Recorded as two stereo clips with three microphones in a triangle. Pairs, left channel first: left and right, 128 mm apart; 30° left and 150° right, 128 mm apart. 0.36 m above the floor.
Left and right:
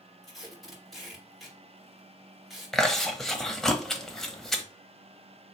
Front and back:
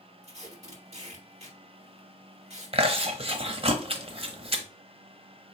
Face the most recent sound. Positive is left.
turn(degrees=175)